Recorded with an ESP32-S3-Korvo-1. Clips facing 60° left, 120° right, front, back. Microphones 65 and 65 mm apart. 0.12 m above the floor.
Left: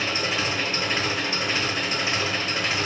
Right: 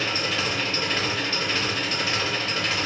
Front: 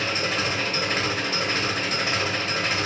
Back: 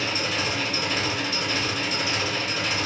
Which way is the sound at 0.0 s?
5° right.